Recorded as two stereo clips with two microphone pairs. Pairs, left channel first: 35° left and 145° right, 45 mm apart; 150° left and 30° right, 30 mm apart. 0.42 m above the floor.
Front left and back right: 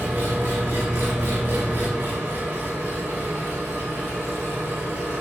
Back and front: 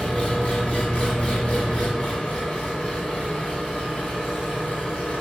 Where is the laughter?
No laughter in this recording.